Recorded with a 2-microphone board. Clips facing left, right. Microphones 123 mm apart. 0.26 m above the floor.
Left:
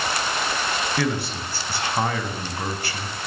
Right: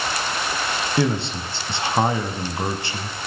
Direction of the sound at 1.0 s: 25° right (ahead or behind).